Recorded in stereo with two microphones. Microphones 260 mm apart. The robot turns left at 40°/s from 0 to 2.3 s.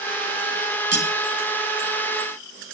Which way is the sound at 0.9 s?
65° right (ahead or behind).